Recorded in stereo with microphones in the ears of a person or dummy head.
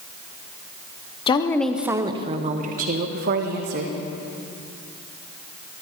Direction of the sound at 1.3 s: 30° left (ahead or behind).